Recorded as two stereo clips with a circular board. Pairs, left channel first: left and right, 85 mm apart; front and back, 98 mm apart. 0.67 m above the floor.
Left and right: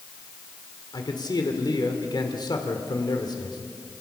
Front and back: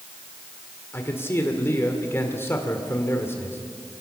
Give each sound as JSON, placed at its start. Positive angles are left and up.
{"t": 0.9, "sound": "a man speaking", "azimuth_deg": 65, "distance_m": 2.0}